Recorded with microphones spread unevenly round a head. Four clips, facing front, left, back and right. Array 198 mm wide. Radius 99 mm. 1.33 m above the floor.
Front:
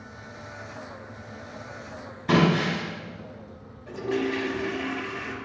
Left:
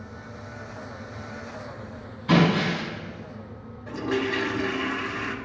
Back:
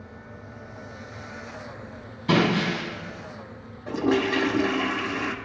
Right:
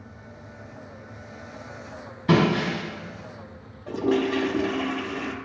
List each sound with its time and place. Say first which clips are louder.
2.3 s breaking glass: even, even; 100° right, 4.5 m
3.9 s a toilet flushing: right 4 dB, back 4 dB; 150° right, 0.6 m